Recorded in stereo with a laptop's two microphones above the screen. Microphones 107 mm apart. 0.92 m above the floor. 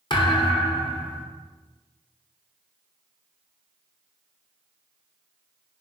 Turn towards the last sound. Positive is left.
turn(degrees=45)  # may be behind; listen again after turning